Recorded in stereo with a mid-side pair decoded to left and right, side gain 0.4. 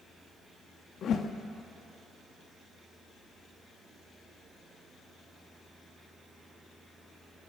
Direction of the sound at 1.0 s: 65° left.